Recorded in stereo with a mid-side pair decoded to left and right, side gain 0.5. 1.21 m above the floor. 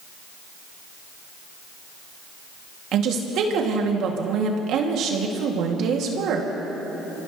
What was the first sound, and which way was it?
A woman speaking, 70° right.